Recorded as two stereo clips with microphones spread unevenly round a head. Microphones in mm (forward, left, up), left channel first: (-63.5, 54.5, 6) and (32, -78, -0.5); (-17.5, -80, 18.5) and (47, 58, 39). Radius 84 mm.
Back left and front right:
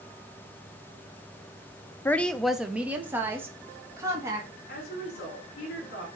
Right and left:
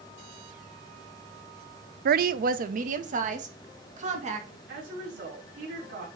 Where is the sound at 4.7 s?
90° left, 4.5 m.